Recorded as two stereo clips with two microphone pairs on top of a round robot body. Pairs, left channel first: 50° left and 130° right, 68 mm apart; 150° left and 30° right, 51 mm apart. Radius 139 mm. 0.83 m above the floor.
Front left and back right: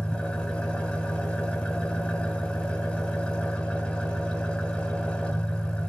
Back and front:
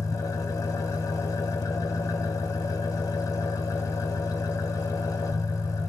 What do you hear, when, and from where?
0.0 s an engine running: 130° left, 1.2 m